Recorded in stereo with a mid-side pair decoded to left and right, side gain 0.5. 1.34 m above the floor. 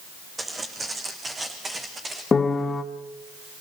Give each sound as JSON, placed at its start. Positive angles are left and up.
{"t": 0.4, "sound": "footsteps", "azimuth_deg": -25, "distance_m": 5.0}
{"t": 2.3, "sound": "a piano", "azimuth_deg": 30, "distance_m": 1.9}